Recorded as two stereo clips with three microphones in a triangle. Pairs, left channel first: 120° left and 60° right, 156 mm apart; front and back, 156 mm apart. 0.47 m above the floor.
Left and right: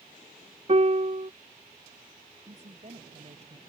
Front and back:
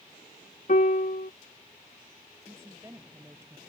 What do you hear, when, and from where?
0.7 s a piano: 20° right
2.5 s a woman speaking: 105° right